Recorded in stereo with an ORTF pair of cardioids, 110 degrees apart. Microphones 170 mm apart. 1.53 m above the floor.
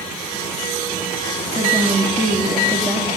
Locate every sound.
1.6 s a woman speaking: 5° right, 2.5 m